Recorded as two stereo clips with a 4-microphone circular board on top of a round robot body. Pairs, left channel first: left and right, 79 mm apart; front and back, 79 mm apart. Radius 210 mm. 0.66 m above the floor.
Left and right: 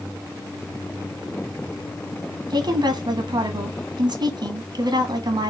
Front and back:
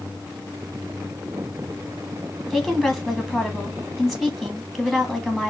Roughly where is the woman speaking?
Right.